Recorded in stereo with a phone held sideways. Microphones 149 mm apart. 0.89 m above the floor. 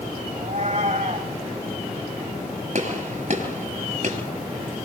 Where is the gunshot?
55° right (ahead or behind), 6 m.